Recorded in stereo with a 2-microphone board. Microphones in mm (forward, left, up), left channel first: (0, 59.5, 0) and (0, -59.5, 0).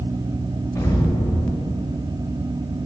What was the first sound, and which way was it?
An explosion, 20° left (ahead or behind).